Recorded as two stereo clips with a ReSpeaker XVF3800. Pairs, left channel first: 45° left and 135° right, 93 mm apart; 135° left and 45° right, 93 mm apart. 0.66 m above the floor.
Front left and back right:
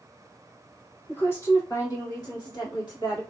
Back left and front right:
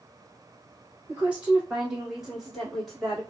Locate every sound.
1.1 s a woman speaking: 5° left, 1.1 m; by 3.2 s 50° left, 1.9 m